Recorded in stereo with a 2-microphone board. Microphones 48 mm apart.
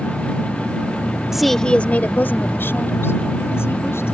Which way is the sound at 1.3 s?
10° right (ahead or behind).